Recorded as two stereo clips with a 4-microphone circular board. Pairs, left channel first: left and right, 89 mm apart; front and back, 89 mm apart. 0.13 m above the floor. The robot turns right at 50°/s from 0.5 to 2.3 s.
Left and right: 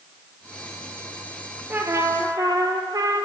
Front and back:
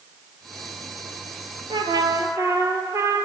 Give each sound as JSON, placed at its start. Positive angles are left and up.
{"t": 1.7, "sound": "a trumpet", "azimuth_deg": -160, "distance_m": 0.7}